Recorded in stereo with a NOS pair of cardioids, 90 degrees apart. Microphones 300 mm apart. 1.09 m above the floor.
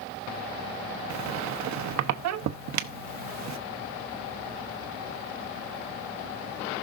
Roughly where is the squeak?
Ahead right.